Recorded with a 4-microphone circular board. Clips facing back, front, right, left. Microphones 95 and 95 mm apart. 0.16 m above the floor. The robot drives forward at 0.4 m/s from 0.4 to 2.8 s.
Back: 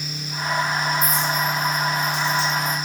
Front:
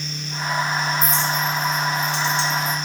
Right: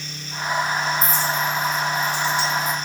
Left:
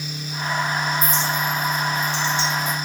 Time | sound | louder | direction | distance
1.0 | a clink | even, right 1 dB | 10° right | 6.5 m